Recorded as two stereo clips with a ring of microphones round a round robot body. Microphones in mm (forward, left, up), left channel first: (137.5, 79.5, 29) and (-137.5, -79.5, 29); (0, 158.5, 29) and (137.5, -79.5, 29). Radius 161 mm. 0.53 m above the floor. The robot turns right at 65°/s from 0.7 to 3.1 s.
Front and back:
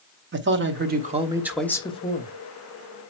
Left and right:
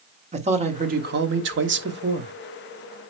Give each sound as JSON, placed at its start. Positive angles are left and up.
{"t": 0.3, "sound": "a man speaking", "azimuth_deg": -115, "distance_m": 1.2}